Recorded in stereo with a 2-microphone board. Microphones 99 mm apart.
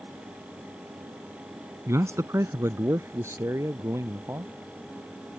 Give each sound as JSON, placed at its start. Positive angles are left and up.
{"t": 1.9, "sound": "a man speaking", "side_deg": -30}